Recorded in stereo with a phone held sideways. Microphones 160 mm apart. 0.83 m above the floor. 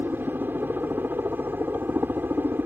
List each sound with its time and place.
0.0 s a helicopter: 10° right (ahead or behind)